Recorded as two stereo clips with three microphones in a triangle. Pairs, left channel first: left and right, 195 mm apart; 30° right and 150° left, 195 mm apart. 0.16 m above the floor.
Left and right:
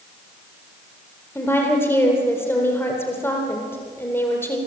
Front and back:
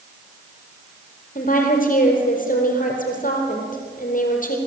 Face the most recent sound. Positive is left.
turn(degrees=10)